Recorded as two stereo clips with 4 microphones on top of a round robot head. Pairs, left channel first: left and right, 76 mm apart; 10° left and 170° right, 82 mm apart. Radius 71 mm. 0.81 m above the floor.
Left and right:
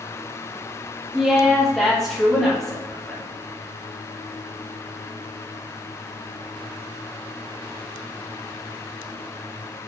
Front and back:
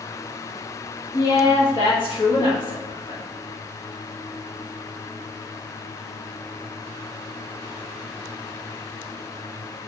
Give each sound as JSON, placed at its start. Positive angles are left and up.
{"t": 1.1, "sound": "a woman speaking", "azimuth_deg": 0, "distance_m": 0.8}